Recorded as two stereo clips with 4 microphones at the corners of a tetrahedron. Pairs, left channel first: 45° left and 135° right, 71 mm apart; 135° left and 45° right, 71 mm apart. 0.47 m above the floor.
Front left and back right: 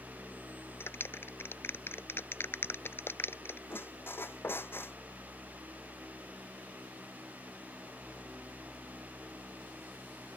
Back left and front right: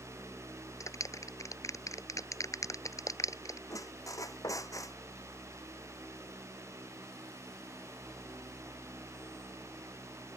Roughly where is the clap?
Left.